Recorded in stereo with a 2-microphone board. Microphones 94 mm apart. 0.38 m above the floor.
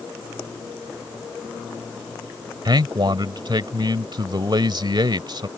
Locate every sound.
2.6 s a man speaking: 55° right (ahead or behind)